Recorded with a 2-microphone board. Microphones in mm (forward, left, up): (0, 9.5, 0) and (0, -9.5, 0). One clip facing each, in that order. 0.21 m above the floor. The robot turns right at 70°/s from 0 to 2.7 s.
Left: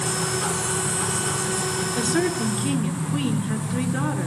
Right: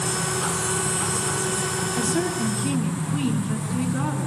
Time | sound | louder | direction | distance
1.9 | a woman speaking | left 2 dB | 125° left | 2.5 m